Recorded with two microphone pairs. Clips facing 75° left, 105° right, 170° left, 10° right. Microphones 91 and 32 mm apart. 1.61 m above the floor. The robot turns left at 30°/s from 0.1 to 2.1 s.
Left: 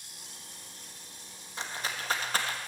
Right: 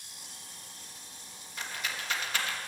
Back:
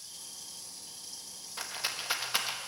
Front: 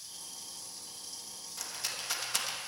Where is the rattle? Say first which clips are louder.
Left 2 dB, back 3 dB; 130° left, 1.1 m; by 2.6 s 115° left, 1.1 m.